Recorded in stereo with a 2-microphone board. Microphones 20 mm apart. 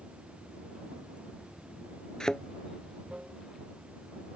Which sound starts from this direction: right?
Running water, at 0.0 s.